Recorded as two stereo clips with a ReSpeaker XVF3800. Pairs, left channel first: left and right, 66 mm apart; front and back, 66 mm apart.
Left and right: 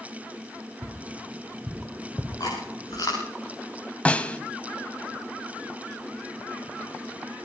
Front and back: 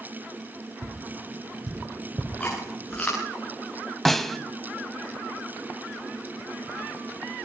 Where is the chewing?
75° left, 10 m.